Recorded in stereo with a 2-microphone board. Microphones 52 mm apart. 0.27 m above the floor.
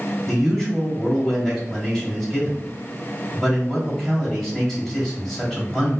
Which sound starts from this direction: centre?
A man speaking, at 0.3 s.